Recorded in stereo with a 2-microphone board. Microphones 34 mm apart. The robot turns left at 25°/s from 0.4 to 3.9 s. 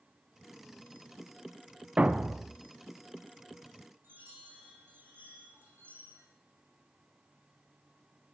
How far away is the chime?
About 4.5 m.